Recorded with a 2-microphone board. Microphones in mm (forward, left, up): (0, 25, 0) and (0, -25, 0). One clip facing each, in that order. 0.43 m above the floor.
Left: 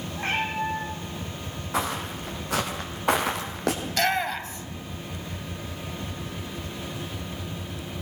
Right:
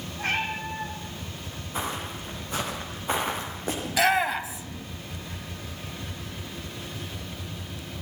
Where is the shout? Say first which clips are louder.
Right 5 dB; 5° right (ahead or behind), 2.5 m.